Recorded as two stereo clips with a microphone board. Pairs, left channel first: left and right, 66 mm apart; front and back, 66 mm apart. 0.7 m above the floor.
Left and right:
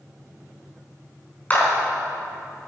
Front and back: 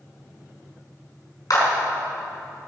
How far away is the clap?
About 4.5 m.